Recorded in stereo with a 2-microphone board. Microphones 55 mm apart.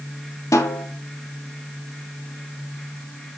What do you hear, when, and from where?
0.5 s a snare drum: 75° left (ahead or behind), 2.5 m